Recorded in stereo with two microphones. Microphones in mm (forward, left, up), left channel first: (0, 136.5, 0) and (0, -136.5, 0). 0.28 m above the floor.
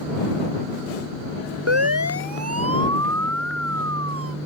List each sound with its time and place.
1.7 s a siren: 70° right (ahead or behind); by 4.4 s 55° right (ahead or behind)